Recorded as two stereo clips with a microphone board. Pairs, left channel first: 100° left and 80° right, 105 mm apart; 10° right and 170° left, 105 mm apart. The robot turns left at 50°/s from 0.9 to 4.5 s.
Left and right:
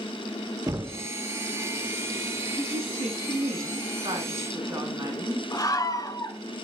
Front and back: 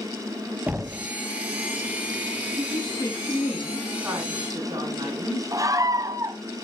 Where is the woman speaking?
40° right, 8 m; by 5.4 s 140° right, 8 m.